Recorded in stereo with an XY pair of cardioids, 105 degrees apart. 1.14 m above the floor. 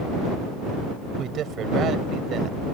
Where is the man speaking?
65° right.